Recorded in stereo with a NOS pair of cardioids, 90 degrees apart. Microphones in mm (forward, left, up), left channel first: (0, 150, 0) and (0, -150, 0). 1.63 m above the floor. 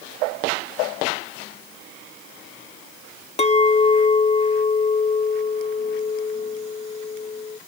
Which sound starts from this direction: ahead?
A clink, at 3.4 s.